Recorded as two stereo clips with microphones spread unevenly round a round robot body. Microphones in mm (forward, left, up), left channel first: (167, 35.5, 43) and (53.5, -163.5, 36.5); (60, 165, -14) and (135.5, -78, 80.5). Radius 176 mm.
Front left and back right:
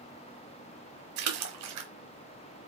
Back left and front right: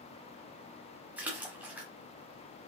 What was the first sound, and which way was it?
A splash, 155° right.